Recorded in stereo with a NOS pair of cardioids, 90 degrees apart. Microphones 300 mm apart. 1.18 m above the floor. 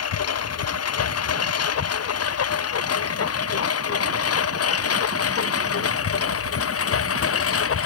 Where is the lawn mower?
55° left; by 7.8 s 50° left.